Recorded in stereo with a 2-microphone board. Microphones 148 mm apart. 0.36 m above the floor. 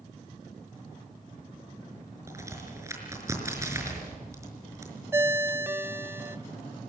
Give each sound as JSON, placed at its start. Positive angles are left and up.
{"t": 2.3, "sound": "a crack", "side_deg": -20, "distance_m": 5.0}
{"t": 5.1, "sound": "a ringtone", "side_deg": -15, "distance_m": 0.7}